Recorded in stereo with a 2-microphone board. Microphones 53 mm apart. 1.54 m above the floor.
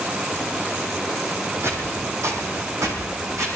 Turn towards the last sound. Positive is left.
turn(degrees=-70)  # may be behind; listen again after turning